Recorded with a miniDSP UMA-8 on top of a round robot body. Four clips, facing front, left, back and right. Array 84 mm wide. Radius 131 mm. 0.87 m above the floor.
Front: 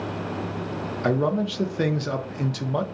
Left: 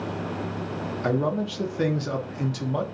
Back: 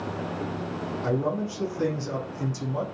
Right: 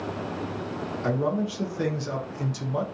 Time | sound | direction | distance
1.0 | a man speaking | 20° left | 0.7 m